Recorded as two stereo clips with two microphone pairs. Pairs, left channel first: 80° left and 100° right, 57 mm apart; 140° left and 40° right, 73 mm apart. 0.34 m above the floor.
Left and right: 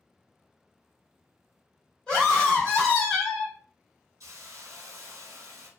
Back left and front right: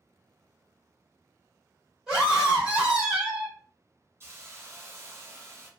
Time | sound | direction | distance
2.1 | a scream | 30° left | 1.6 m
4.2 | a hiss | 95° right | 0.8 m